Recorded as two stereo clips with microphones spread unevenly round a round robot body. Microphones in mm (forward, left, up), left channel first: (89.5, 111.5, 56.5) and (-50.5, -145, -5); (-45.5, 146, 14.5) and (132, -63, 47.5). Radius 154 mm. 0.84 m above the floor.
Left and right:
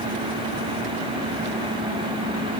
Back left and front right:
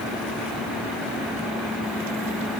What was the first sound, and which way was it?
Only background noise.